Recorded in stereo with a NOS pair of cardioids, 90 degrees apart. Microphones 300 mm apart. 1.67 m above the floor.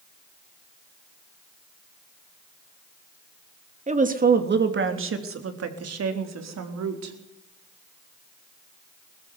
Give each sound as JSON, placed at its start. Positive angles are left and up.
{"t": 3.9, "sound": "a woman speaking", "azimuth_deg": -25, "distance_m": 3.0}